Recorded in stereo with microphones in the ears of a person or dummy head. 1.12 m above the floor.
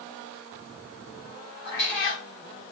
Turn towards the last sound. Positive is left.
turn(degrees=60)  # may be behind; listen again after turning